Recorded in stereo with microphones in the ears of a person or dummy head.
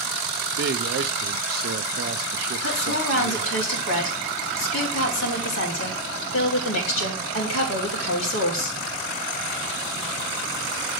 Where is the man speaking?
50° right (ahead or behind), 0.6 m.